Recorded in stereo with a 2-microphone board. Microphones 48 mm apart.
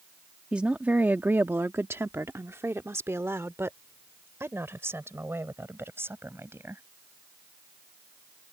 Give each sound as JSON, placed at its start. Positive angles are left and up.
{"t": 0.5, "sound": "a woman speaking", "side_deg": -25}